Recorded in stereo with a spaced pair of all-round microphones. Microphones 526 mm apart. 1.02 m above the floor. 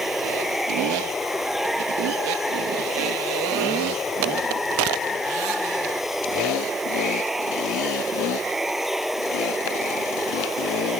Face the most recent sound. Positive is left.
turn(degrees=0)  # may be behind; listen again after turning